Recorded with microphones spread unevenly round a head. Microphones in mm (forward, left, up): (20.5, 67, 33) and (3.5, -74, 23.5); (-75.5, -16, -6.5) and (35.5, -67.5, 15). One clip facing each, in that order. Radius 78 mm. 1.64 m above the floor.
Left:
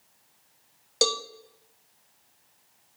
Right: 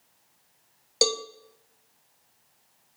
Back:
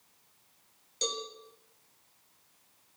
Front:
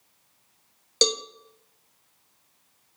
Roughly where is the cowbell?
Ahead.